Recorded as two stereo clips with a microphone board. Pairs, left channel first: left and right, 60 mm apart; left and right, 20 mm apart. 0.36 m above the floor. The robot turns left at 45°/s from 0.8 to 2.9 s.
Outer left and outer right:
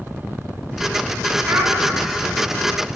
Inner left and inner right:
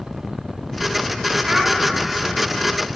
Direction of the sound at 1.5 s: 40° right (ahead or behind).